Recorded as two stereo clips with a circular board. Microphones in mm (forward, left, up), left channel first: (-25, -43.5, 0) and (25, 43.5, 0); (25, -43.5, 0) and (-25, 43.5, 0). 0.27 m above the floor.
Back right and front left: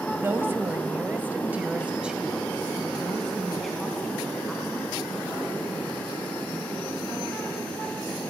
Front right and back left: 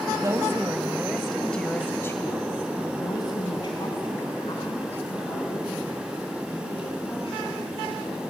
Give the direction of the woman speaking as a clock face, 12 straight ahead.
8 o'clock.